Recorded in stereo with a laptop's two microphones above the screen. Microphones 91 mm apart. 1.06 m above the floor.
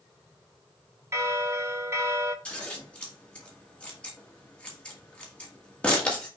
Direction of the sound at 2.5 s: 15° left (ahead or behind).